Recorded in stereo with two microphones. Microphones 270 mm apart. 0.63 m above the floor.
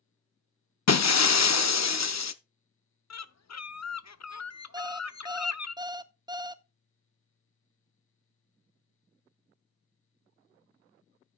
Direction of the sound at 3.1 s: 75° left (ahead or behind).